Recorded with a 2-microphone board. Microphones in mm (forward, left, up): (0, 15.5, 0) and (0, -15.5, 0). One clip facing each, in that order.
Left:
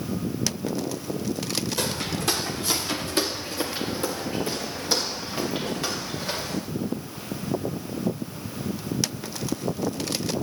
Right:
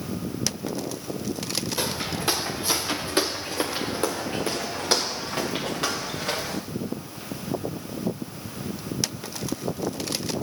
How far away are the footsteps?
About 2.5 m.